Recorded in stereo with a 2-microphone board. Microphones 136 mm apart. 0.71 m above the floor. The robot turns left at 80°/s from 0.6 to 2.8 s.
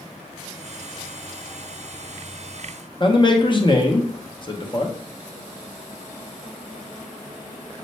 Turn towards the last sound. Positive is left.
turn(degrees=35)  # may be behind; listen again after turning